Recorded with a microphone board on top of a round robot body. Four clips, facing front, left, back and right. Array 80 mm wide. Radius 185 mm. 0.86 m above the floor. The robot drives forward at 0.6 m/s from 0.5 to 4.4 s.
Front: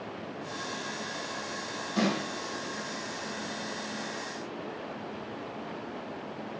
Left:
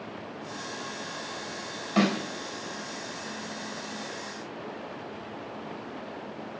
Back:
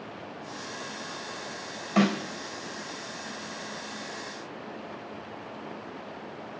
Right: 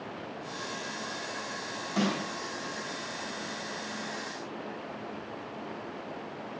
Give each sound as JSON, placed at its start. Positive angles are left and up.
{"t": 2.0, "sound": "a snare drum", "azimuth_deg": 155, "distance_m": 4.0}